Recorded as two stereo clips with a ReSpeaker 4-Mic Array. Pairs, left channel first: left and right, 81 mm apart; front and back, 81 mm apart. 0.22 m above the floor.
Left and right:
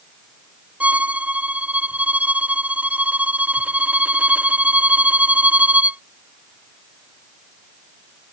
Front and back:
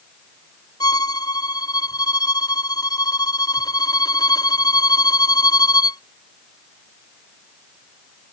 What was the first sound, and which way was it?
A violin, 20° right.